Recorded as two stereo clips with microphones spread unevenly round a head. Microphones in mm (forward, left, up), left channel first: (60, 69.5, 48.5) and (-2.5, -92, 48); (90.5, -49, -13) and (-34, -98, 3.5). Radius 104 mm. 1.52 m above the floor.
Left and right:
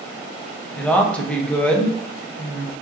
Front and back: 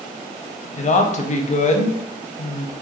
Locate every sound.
0.7 s a woman speaking: 15° right, 0.5 m